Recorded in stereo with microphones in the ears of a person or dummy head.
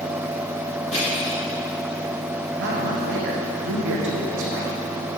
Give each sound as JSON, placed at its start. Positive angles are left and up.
{"t": 0.9, "sound": "crushing", "side_deg": 35, "distance_m": 2.0}
{"t": 2.5, "sound": "a man speaking", "side_deg": -55, "distance_m": 0.9}